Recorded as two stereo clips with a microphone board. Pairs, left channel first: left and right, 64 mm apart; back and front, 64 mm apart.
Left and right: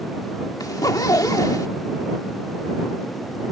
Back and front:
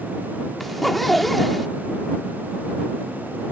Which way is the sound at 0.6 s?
90° left.